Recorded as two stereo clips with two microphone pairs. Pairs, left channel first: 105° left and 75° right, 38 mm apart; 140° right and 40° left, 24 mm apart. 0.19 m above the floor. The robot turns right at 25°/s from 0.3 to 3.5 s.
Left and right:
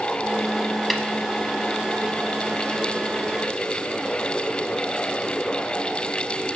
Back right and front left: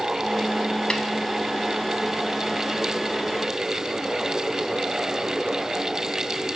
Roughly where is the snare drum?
Behind.